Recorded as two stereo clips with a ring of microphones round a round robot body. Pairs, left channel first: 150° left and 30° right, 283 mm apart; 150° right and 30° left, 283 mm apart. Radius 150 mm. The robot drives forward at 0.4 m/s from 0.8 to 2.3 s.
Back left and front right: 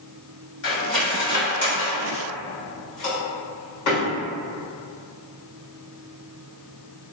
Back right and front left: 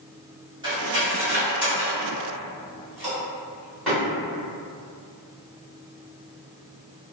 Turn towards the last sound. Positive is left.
turn(degrees=120)